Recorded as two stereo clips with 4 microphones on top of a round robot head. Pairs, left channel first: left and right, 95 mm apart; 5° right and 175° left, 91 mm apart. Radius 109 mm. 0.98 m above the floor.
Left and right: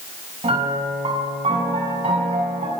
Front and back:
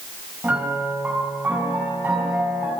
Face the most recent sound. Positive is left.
turn(degrees=-110)